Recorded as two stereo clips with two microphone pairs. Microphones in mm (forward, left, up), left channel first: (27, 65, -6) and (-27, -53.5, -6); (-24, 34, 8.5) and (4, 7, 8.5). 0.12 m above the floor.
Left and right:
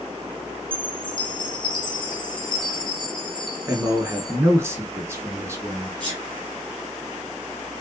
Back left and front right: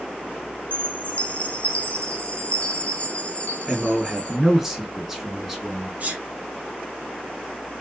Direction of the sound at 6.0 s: 80° right.